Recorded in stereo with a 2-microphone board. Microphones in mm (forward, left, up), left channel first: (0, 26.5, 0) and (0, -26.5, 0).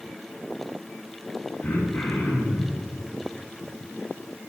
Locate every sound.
1.6 s throat clearing: 35° left (ahead or behind), 2.5 m